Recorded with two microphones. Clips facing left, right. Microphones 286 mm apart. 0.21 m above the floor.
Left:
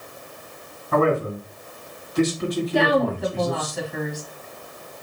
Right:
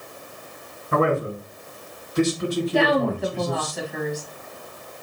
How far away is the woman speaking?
About 1.3 m.